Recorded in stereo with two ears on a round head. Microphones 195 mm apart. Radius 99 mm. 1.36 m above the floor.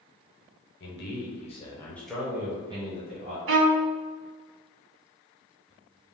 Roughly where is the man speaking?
Left.